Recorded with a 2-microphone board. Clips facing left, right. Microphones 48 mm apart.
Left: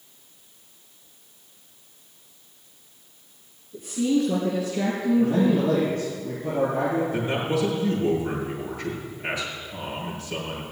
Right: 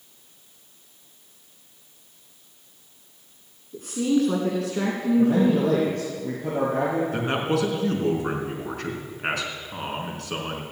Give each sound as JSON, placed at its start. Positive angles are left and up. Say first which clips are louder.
{"t": 3.7, "sound": "a woman speaking", "louder": "even", "side_deg": -65, "distance_m": 2.5}
{"t": 5.2, "sound": "a man speaking", "louder": "right 2 dB", "side_deg": -65, "distance_m": 4.5}
{"t": 7.1, "sound": "a man speaking", "louder": "right 1 dB", "side_deg": -60, "distance_m": 3.5}